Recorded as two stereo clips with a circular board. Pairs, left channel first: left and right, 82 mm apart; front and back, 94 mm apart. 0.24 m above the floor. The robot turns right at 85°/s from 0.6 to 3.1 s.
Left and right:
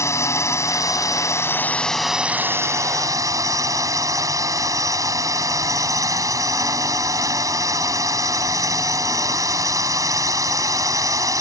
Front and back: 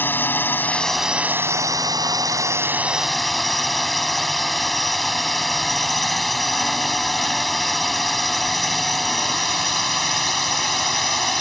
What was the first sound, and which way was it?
A drone, 60° left.